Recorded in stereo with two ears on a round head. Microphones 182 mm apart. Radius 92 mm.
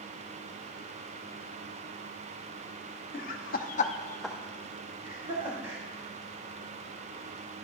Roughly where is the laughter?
Left.